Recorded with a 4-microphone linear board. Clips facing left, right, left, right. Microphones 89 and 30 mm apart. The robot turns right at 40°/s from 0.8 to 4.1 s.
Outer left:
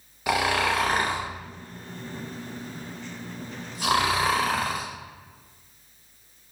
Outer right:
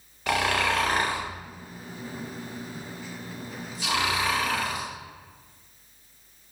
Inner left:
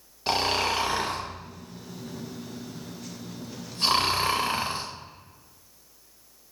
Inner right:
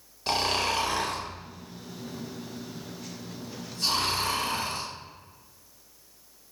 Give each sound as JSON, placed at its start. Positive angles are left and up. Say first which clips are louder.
{"t": 0.3, "sound": "snoring", "louder": "outer left 1 dB, inner left 1 dB", "side_deg": 10, "distance_m": 0.6}